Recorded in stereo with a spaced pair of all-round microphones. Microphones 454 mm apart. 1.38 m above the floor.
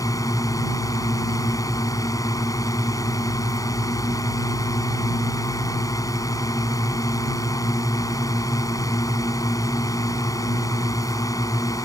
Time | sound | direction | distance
0.0 | a drone | 5° left (ahead or behind) | ?